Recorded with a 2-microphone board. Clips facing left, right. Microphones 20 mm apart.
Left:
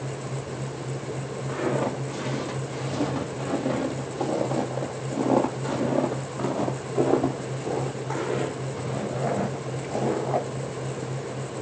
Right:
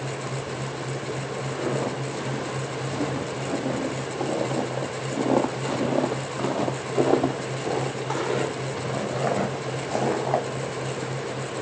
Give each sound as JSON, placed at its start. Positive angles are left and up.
{"t": 1.5, "sound": "footsteps", "side_deg": 25, "distance_m": 3.0}